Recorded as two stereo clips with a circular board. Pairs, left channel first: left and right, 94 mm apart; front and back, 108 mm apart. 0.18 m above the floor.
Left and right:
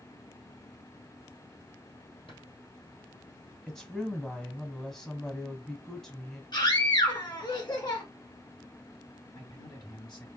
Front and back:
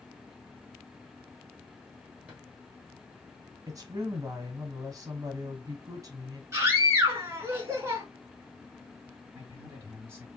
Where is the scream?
120° left, 2.5 m.